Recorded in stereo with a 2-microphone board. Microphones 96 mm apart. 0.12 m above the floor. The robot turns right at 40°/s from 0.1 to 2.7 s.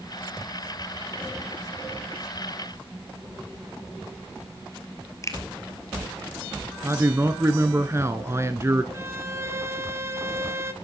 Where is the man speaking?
30° right (ahead or behind), 1.2 m.